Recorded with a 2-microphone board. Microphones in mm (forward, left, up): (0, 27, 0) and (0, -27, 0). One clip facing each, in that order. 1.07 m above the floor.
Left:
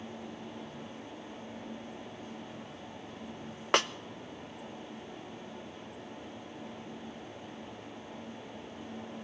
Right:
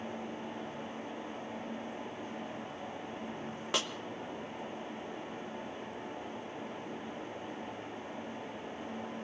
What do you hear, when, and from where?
3.7 s a snare drum: 55° left (ahead or behind), 0.6 m